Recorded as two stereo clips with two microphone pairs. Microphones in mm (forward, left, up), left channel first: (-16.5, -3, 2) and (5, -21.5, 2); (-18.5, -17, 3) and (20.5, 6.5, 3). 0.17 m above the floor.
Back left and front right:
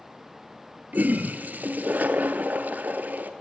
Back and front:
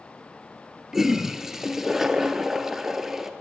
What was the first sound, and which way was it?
A toilet flushing, 50° right.